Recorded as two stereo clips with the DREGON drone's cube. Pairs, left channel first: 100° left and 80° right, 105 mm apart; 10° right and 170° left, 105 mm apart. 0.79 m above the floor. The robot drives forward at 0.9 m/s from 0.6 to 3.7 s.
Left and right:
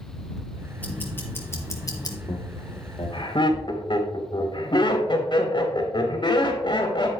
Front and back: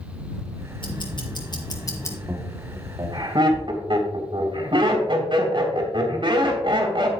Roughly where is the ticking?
Ahead left.